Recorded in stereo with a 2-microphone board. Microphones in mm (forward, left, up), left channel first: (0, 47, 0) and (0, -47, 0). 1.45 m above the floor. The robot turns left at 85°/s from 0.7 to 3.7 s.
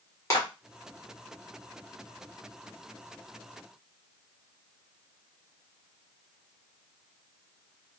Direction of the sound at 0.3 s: 35° left (ahead or behind).